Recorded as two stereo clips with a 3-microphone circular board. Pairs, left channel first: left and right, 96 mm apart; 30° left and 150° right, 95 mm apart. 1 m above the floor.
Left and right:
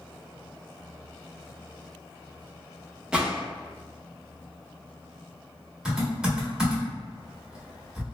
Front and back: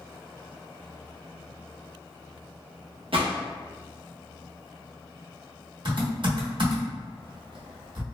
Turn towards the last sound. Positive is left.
turn(degrees=-175)